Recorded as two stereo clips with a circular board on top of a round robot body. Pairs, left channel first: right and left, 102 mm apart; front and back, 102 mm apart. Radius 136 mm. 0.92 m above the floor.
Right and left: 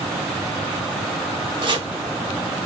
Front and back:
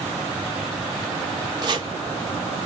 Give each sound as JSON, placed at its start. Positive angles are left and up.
{"t": 1.6, "sound": "chopping", "azimuth_deg": 130, "distance_m": 1.5}